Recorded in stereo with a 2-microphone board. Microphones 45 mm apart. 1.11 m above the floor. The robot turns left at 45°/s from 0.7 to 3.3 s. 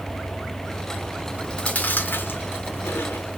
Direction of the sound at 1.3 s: 20° left (ahead or behind).